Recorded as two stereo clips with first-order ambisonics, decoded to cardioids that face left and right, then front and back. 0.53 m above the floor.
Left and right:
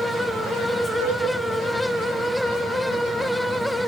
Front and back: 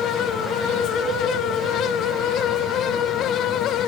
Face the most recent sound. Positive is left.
turn(degrees=170)